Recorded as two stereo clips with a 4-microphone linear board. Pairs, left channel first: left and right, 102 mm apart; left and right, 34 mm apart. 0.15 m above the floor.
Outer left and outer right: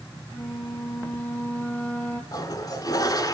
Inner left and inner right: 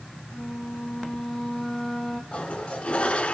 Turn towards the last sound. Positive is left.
turn(degrees=35)  # may be behind; listen again after turning